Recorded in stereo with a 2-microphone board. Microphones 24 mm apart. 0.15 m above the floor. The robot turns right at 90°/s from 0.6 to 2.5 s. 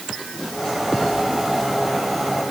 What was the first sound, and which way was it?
Only background noise.